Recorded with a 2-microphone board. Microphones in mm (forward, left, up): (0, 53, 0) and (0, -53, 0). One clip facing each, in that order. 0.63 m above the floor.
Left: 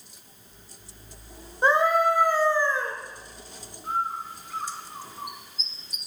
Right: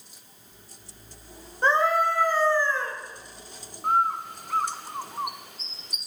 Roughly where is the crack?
No crack in this recording.